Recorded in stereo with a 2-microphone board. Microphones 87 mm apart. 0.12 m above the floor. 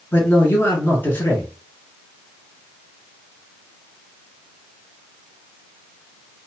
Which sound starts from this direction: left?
A man speaking, at 0.1 s.